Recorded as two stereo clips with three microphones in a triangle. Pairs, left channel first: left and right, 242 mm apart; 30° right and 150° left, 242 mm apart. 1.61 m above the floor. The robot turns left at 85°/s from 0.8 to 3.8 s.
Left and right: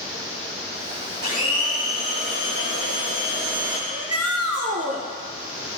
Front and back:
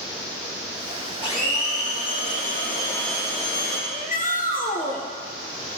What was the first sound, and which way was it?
A blender, 40° left.